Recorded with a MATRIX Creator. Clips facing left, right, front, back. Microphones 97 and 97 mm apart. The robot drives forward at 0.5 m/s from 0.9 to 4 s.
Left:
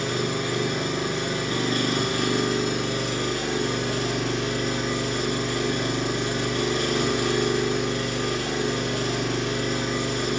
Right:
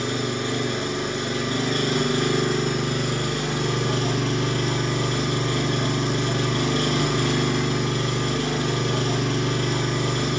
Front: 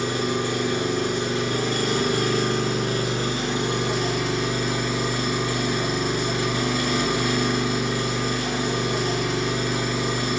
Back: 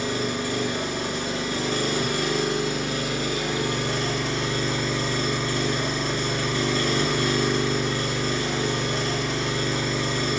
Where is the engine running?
25° right, 1.8 m; by 10.4 s 80° right, 0.8 m.